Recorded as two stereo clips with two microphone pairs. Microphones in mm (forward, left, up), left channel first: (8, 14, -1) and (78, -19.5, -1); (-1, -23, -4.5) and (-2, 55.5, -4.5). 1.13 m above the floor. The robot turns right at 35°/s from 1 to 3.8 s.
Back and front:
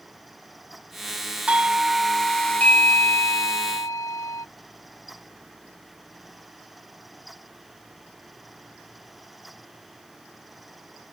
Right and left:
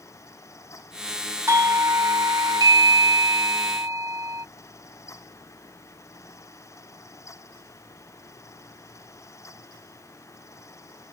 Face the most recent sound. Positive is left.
turn(degrees=130)